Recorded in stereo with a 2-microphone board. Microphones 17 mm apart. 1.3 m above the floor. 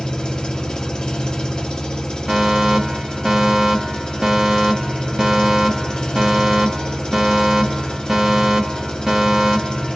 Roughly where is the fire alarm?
Right.